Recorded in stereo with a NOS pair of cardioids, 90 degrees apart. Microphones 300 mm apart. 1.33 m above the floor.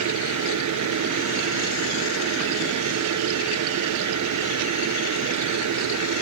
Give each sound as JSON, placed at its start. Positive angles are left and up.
{"t": 0.0, "sound": "a fan", "azimuth_deg": -65}